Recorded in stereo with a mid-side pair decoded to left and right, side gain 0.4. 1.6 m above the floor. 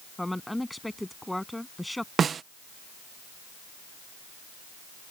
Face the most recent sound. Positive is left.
turn(degrees=-55)